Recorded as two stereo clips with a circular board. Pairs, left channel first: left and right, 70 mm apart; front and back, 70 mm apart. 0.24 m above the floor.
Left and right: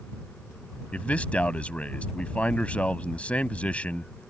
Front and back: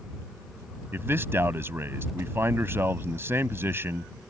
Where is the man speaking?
150° left.